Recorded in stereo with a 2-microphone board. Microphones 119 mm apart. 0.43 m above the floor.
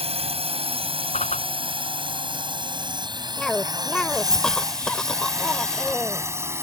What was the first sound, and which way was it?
A drone, 55° right (ahead or behind).